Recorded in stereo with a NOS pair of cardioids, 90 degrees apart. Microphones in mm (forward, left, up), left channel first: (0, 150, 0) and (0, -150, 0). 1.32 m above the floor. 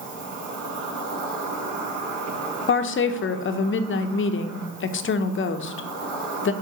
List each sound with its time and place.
0.0 s an insect: 70° right, 3 m
2.7 s a woman speaking: 45° left, 0.8 m